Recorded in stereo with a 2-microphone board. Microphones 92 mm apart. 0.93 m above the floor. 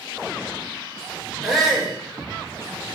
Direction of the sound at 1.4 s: 5° right (ahead or behind).